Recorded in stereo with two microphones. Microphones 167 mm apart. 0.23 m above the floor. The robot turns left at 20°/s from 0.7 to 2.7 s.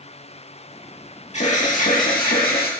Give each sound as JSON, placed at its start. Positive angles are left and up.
{"t": 1.3, "sound": "an alarm", "side_deg": 45, "distance_m": 3.0}